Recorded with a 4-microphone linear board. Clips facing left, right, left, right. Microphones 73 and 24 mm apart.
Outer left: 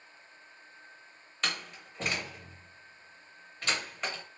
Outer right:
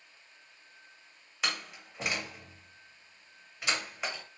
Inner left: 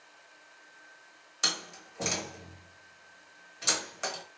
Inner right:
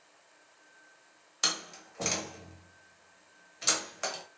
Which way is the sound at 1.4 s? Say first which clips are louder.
Even, inner left 1 dB; 10° right (ahead or behind).